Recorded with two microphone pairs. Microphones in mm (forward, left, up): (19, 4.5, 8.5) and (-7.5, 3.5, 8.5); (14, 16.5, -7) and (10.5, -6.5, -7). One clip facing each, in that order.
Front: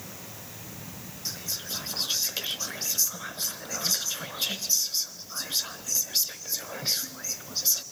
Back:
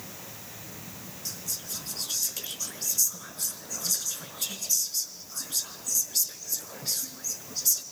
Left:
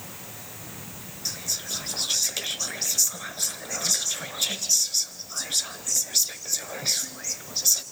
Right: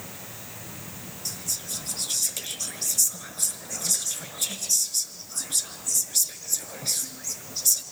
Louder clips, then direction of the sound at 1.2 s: Front 3 dB, left 3 dB; 30° left.